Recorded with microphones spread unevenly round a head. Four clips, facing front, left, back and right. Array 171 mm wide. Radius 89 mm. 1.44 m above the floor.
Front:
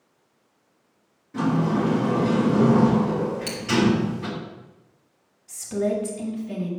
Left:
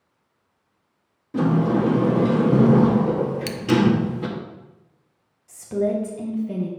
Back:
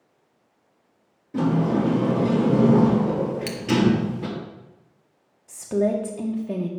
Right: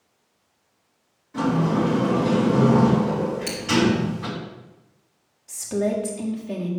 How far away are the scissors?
About 0.7 m.